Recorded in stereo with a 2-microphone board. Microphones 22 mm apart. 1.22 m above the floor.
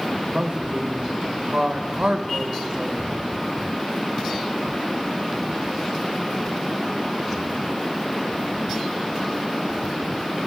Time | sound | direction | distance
0.3 | a woman speaking | 60° right (ahead or behind) | 1.1 m